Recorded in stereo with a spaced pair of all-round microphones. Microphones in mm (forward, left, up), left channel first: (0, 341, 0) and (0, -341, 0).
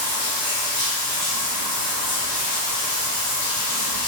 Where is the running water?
60° left (ahead or behind), 0.8 m.